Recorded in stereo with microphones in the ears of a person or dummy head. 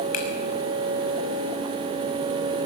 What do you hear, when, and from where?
0.1 s a finger snap: 50° left (ahead or behind), 6 m